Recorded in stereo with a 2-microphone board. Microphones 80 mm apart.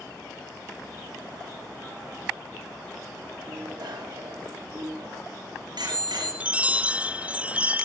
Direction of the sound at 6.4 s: 20° right (ahead or behind).